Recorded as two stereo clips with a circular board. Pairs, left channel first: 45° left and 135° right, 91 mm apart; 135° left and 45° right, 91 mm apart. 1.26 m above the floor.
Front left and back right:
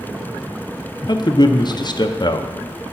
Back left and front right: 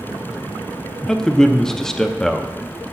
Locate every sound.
1.1 s a man speaking: 50° left, 0.5 m